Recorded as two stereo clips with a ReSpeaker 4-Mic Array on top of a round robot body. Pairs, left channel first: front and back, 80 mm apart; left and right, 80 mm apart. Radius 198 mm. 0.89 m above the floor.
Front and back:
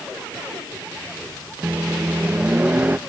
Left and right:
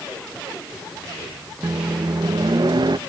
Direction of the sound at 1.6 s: 110° right.